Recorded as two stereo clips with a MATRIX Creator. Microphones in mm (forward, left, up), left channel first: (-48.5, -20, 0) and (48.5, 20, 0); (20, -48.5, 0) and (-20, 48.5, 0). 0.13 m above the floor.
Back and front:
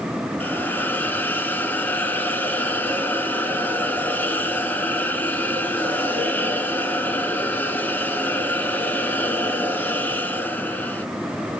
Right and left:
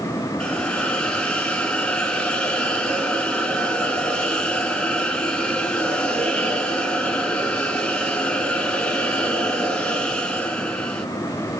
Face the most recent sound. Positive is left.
turn(degrees=-130)